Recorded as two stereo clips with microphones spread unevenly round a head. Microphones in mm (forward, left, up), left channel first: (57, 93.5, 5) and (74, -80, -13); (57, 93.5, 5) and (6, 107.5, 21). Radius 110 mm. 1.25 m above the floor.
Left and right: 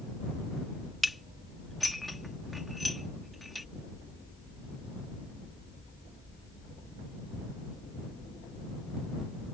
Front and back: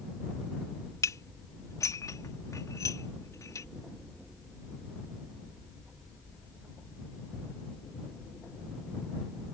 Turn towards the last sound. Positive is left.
turn(degrees=5)